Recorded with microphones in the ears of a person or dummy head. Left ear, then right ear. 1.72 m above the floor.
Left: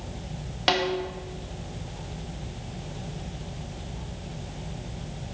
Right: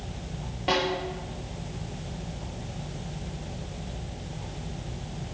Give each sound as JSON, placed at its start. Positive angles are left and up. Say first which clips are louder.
{"t": 0.7, "sound": "a snare drum", "louder": "left 2 dB", "side_deg": 60, "distance_m": 1.0}